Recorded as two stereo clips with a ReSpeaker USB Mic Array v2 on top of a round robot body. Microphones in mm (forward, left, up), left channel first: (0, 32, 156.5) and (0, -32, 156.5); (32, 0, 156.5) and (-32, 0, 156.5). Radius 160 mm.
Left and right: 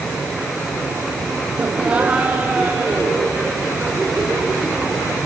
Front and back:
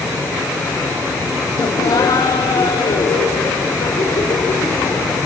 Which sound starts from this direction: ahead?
Laughter, at 1.6 s.